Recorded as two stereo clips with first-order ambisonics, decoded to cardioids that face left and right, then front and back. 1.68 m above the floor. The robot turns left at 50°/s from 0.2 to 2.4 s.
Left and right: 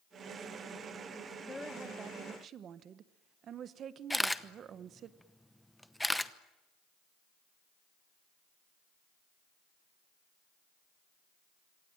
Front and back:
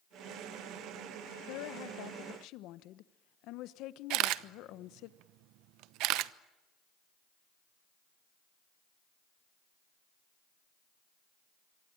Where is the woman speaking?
15° left, 1.3 m; by 5.1 s 35° right, 1.3 m.